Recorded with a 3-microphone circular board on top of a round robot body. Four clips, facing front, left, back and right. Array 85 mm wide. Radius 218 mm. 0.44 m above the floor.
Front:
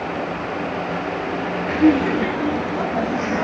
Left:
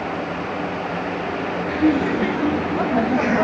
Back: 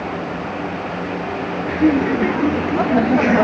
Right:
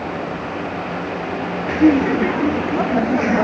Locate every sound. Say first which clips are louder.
1.7 s laughter: right 5 dB, even; 70° right, 1.2 m; by 3.4 s straight behind, 1.5 m